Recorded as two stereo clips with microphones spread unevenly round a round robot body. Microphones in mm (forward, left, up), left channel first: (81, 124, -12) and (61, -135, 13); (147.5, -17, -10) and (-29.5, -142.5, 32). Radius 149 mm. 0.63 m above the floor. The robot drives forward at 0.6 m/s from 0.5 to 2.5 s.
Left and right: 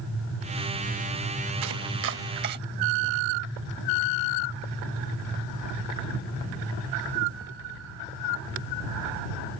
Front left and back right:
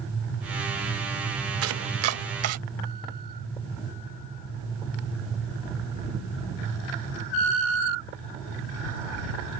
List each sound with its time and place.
1.6 s chopping: 135° right; by 2.6 s 155° right